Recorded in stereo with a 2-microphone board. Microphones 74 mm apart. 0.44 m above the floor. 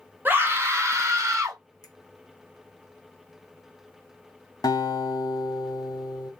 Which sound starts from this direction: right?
A scream, at 0.2 s.